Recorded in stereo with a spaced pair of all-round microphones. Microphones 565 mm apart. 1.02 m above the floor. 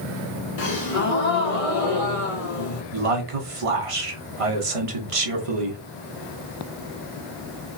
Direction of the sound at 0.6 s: 70° left (ahead or behind).